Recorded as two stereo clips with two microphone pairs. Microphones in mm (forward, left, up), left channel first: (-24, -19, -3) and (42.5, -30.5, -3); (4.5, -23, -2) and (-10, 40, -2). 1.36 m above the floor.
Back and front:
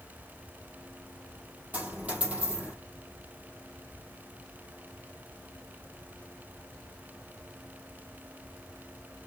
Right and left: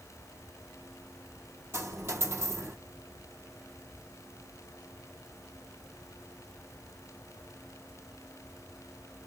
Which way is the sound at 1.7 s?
60° left.